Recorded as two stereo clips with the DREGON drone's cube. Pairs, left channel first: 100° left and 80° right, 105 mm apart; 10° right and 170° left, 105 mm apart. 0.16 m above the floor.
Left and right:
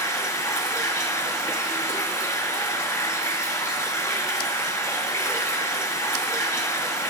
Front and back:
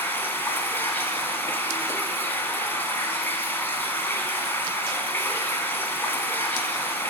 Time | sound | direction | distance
0.0 | running water | 50° left | 1.2 m